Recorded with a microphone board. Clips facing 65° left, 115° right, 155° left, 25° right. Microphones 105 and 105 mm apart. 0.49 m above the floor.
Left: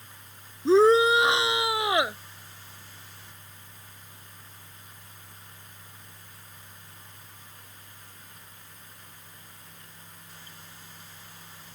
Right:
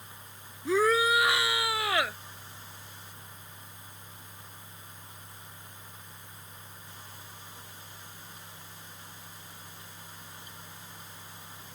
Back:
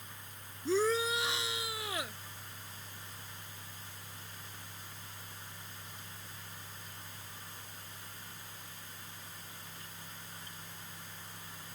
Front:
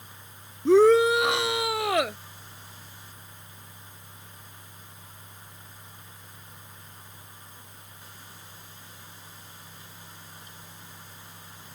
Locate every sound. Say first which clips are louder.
0.7 s a shout: left 7 dB, front 14 dB; 5° left; by 2.2 s 5° right